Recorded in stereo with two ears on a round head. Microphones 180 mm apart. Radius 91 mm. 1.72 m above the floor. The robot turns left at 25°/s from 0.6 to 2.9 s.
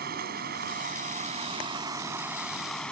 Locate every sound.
0.0 s running water: 130° right; by 2.9 s 175° left